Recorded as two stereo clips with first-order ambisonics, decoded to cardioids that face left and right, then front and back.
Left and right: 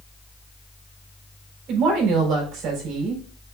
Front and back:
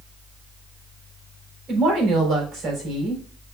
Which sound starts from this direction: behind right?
A woman speaking, at 1.7 s.